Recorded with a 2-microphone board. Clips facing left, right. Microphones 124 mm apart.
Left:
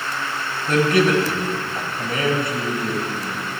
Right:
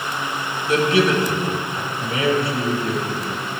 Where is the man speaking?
50° left (ahead or behind), 2.5 m.